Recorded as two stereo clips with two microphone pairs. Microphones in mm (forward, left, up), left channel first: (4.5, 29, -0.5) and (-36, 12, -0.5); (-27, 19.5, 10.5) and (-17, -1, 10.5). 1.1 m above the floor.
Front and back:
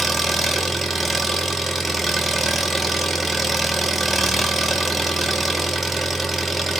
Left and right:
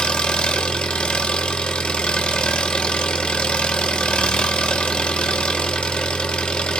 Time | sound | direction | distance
0.0 | an engine running | 115° left | 0.8 m